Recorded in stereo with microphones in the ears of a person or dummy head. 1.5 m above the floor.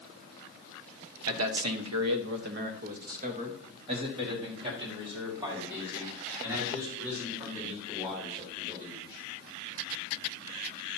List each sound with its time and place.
1.3 s a man speaking: 75° right (ahead or behind), 1.0 m; by 9.2 s 10° right (ahead or behind), 4.5 m